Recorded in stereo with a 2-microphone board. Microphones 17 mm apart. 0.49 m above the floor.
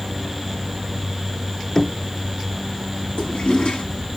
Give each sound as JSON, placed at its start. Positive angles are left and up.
{"t": 1.8, "sound": "knocking", "side_deg": 35, "distance_m": 0.9}
{"t": 3.2, "sound": "a toilet flushing", "side_deg": 65, "distance_m": 3.0}